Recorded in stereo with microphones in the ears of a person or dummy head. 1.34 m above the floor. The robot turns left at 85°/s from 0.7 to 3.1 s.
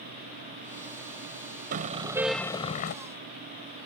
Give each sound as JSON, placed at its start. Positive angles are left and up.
{"t": 1.7, "sound": "a car horn", "azimuth_deg": -130}